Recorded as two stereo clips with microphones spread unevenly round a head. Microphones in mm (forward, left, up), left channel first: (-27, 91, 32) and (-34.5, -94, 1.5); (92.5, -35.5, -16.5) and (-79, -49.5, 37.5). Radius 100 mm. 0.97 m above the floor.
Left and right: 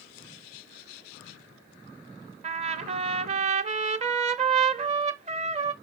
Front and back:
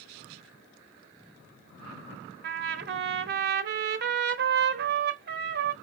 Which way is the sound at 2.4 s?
150° right.